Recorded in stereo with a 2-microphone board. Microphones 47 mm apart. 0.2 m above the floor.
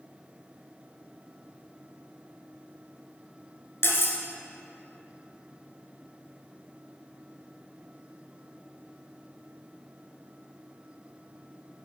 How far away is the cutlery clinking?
About 1.5 m.